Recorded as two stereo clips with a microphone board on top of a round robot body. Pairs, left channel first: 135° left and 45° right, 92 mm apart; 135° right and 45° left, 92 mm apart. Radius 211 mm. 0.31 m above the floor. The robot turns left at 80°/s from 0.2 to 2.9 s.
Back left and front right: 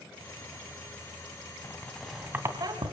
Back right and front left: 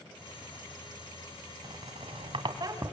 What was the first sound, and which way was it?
A squeak, 80° left.